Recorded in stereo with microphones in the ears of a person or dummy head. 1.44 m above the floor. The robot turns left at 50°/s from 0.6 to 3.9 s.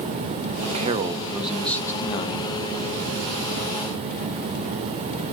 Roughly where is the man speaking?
Behind right.